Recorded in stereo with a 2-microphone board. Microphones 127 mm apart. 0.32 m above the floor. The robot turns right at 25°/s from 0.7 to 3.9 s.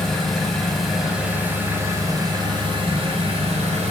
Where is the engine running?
175° left, 1.1 m; by 3.9 s 105° right, 1.1 m.